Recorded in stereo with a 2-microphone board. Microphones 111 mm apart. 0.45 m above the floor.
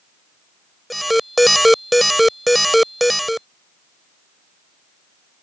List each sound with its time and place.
0.9 s an alarm: centre (ahead or behind)